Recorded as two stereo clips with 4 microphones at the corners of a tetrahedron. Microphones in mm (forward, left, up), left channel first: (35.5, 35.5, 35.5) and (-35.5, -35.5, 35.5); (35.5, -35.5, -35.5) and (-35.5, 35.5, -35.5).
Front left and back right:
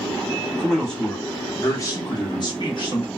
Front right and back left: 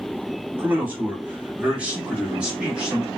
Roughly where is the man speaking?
Behind left.